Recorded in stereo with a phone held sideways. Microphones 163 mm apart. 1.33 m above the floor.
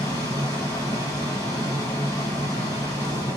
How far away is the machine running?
About 1.4 m.